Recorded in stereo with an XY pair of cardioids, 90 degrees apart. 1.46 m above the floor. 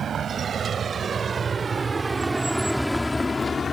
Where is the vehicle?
60° right; by 3.8 s 45° left.